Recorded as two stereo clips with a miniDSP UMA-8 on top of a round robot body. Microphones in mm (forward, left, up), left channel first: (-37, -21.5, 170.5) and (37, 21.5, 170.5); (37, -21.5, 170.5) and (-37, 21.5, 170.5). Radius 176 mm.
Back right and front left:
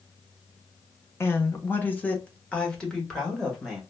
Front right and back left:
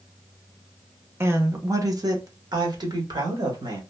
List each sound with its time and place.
1.2 s a woman speaking: straight behind, 0.9 m; by 3.8 s 125° left, 1.7 m